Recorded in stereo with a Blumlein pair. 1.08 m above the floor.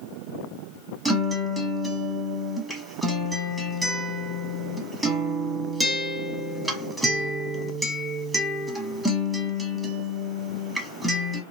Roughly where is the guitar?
Ahead.